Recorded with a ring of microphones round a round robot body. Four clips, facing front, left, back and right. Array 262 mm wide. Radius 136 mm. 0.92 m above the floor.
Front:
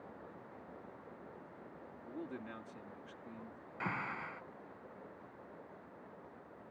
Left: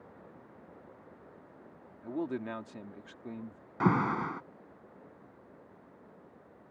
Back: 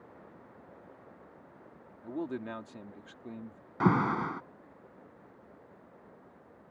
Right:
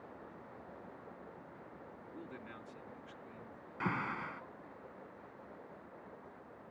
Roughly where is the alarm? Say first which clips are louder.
Left 10 dB, back 14 dB; behind left.